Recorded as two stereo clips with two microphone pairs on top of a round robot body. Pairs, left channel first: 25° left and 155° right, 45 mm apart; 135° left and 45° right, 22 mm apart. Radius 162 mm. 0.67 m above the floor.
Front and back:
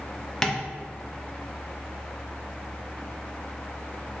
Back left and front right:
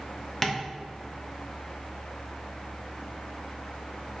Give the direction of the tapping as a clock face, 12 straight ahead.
9 o'clock.